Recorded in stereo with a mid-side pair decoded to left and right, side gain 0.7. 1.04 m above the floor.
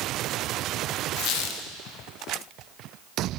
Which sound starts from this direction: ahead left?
A squeak, at 1.2 s.